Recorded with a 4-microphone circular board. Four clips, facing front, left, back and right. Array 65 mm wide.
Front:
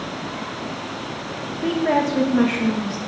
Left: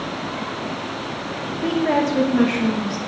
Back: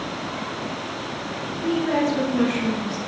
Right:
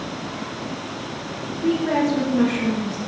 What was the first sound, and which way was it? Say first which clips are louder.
A woman speaking: left 1 dB, front 2 dB; 35° left.